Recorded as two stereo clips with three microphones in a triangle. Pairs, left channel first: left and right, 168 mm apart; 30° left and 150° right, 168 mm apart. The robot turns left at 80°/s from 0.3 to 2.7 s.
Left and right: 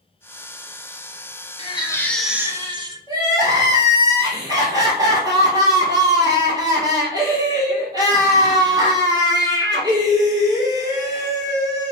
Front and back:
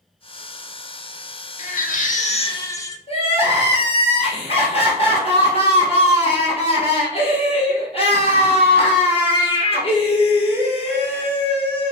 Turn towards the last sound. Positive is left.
turn(degrees=-25)